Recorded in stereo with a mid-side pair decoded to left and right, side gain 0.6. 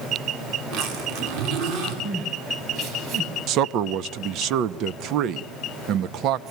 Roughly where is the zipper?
Ahead right.